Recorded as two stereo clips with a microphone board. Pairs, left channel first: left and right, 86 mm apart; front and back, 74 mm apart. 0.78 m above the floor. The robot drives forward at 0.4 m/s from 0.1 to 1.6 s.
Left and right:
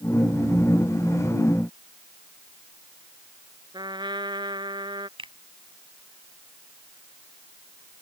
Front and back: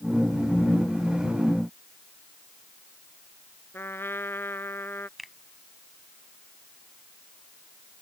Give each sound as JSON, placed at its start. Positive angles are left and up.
{"t": 3.7, "sound": "a trumpet", "azimuth_deg": -60}
{"t": 5.2, "sound": "a finger snap", "azimuth_deg": -90}